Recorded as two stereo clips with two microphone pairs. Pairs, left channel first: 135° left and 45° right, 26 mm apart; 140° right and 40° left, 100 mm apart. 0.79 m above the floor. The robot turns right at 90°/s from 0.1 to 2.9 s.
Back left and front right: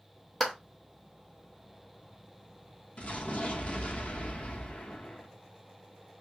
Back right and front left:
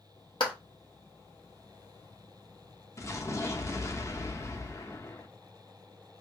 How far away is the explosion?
About 0.6 m.